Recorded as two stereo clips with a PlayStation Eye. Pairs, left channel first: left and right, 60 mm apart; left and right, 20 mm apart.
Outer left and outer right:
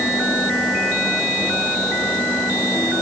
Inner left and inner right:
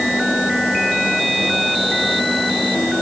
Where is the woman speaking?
No woman speaking in this recording.